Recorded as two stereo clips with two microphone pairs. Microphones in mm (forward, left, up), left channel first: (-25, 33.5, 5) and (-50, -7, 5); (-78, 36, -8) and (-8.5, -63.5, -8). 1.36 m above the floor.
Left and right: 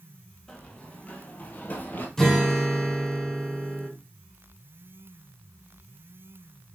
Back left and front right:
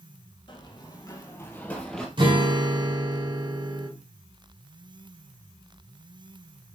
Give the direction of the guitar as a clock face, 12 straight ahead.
1 o'clock.